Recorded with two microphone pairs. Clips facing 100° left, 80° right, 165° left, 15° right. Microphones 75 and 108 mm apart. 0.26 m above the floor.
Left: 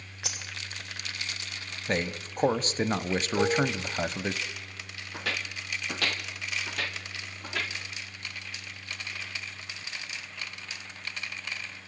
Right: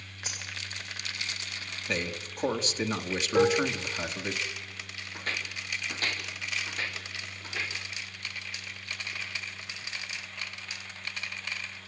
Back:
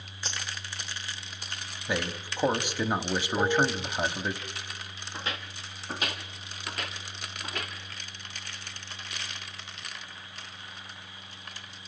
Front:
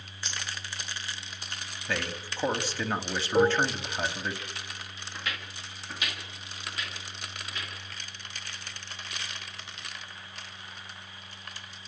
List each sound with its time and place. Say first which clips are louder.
0.2 s a dropped coin: left 1 dB, back 1 dB; 110° left, 4.5 m
1.9 s a man speaking: left 3 dB, back 2 dB; 100° left, 1.3 m
3.4 s dishes clattering: right 3 dB, front 3 dB; 30° right, 1.8 m
5.1 s footsteps: left 2 dB, back 2 dB; 100° left, 3 m; by 7.7 s 130° left, 5 m